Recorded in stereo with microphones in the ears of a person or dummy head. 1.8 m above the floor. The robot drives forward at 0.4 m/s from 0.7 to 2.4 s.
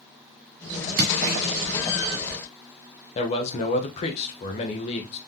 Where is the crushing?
60° right (ahead or behind), 2.5 m.